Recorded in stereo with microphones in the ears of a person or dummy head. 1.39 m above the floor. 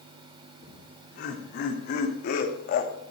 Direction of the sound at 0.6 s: 50° left (ahead or behind).